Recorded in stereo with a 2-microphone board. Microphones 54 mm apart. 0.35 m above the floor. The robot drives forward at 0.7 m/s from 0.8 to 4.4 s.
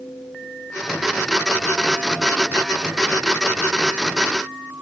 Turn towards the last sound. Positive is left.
No sound to turn to.